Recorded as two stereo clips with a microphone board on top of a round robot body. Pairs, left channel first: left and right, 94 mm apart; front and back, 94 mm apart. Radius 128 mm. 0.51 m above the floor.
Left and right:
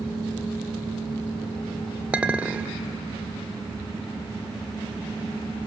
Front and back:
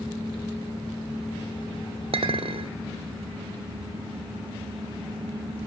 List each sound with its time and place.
2.1 s a clink: 165° right, 1.2 m